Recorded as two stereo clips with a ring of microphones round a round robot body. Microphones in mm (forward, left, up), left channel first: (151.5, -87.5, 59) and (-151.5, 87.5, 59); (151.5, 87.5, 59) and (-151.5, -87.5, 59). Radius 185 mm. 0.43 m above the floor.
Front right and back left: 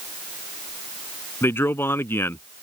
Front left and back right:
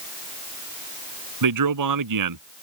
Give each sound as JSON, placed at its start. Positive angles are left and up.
{"t": 1.4, "sound": "a man speaking", "azimuth_deg": -115}